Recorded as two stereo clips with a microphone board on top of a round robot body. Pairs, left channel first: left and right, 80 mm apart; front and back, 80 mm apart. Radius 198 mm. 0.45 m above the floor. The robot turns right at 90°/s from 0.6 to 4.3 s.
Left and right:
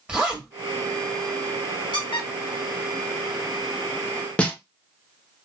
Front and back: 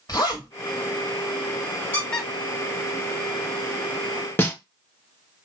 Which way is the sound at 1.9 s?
60° left.